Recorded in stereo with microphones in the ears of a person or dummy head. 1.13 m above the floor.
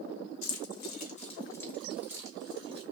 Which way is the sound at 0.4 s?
70° left (ahead or behind).